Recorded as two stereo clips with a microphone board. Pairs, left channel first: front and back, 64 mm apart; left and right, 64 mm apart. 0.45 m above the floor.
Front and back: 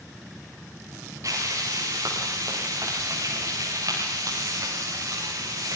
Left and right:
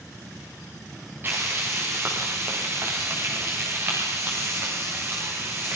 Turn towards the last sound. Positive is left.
turn(degrees=-150)